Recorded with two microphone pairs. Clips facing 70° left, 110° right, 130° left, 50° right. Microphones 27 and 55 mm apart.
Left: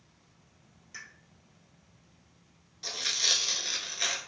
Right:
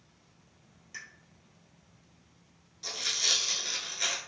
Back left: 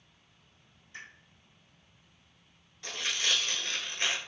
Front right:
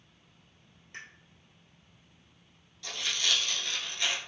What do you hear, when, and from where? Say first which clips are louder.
0.9 s a pop: right 1 dB, front right 1 dB; 30° right, 1.0 m
2.8 s tearing paper: left 1 dB, even; 130° left, 0.6 m